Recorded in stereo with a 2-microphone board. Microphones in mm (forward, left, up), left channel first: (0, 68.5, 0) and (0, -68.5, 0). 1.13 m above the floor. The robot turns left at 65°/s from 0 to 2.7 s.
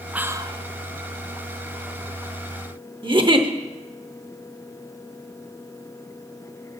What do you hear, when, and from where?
0.1 s whispering: 10° right, 0.6 m; by 0.6 s 40° right, 0.6 m
3.0 s a giggle: 35° right (ahead or behind), 0.9 m